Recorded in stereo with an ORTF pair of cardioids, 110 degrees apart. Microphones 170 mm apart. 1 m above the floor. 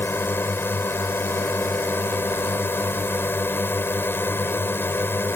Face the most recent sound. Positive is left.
turn(degrees=15)